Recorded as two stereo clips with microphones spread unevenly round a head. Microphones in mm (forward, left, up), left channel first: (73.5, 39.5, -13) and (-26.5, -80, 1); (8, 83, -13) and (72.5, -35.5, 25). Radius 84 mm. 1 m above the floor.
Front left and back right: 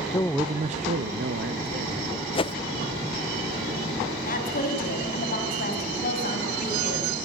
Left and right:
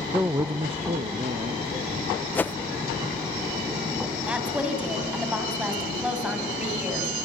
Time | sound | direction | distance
0.1 | a man speaking | 45° left | 0.5 m
2.4 | a whoosh | 25° left | 0.5 m
4.3 | a woman speaking | 20° left | 6 m